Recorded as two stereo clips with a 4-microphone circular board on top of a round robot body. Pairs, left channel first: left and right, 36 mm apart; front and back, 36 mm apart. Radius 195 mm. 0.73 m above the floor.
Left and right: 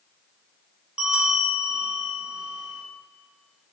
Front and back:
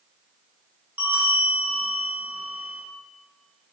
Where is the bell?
165° right, 1.6 m.